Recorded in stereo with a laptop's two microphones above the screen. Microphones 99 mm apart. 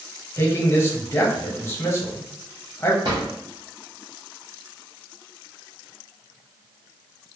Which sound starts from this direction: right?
A drawer, at 3.0 s.